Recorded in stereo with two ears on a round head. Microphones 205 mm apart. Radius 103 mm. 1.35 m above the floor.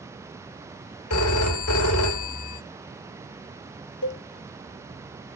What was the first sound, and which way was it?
A phone ringing, 75° left (ahead or behind).